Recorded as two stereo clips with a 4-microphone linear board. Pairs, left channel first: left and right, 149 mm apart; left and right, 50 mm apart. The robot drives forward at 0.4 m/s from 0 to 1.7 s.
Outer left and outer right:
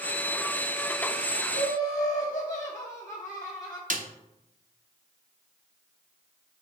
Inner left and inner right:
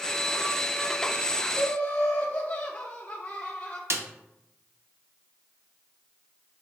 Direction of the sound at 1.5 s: 20° left (ahead or behind).